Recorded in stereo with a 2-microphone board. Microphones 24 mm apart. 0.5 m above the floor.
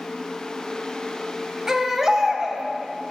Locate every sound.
1.7 s a baby crying: 20° right (ahead or behind), 0.9 m